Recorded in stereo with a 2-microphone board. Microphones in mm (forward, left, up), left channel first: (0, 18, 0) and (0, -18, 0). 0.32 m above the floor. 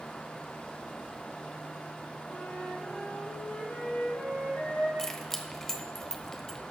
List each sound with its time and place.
2.3 s a flute: 65° left (ahead or behind), 4.5 m
5.0 s keys jangling: 10° left (ahead or behind), 1.0 m